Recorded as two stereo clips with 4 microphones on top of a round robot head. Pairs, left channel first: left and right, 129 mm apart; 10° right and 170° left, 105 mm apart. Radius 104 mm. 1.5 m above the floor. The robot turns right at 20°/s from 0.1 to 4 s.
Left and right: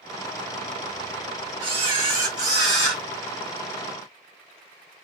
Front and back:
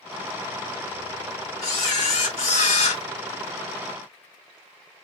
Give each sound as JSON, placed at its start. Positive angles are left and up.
{"t": 1.6, "sound": "a camera shutter", "azimuth_deg": -35, "distance_m": 1.1}